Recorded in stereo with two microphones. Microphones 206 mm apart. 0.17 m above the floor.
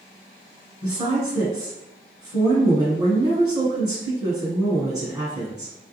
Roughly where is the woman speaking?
Centre.